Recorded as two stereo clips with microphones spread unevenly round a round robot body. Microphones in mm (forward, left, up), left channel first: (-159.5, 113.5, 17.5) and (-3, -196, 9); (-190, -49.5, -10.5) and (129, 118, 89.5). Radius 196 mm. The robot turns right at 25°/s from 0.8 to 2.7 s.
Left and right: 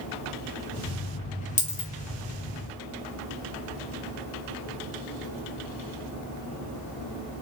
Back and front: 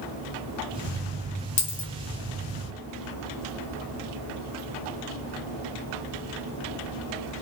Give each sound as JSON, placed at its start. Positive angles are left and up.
{"t": 1.6, "sound": "a dropped coin", "azimuth_deg": -170, "distance_m": 1.2}